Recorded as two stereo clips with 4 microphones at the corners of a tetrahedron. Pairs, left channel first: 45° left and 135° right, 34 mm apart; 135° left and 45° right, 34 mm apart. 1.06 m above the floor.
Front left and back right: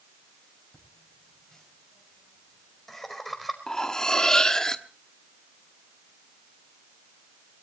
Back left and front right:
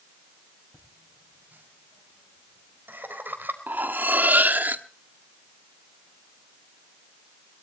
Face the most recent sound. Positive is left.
turn(degrees=-25)